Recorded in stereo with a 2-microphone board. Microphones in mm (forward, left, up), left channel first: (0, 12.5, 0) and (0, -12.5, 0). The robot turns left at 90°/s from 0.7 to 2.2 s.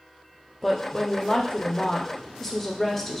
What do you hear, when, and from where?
0.6 s a woman speaking: 10° left (ahead or behind), 0.5 m